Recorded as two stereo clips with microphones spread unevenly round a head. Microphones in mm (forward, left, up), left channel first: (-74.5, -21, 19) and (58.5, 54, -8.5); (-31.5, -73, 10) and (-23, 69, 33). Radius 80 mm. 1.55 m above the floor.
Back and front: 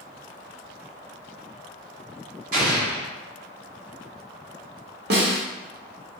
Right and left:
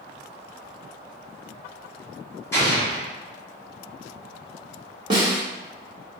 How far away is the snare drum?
About 1.2 m.